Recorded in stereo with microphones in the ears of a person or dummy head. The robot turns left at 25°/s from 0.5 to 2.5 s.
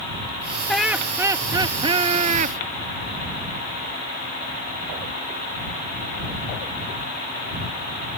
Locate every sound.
0.7 s laughter: 5° left; by 2.6 s 40° right